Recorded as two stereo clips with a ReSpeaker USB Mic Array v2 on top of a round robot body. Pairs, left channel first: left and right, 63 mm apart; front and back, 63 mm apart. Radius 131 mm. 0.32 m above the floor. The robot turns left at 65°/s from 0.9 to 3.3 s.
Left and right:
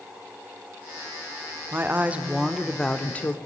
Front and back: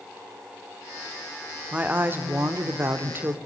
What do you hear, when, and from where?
1.7 s a woman speaking: 120° right, 1.2 m; by 3.4 s 135° left, 1.2 m